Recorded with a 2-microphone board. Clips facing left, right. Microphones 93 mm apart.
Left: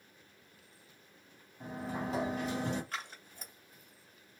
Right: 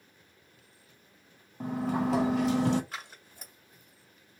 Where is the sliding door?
80° right, 0.6 m.